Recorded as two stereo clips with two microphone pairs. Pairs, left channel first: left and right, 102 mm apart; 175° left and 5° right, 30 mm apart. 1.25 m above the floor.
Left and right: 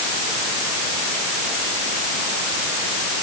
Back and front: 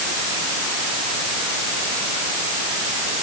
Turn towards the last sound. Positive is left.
No sound to turn to.